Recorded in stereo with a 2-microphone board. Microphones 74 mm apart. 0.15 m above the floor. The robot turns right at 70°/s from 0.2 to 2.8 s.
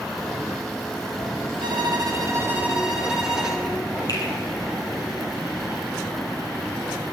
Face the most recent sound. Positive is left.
turn(degrees=55)  # may be behind; listen again after turning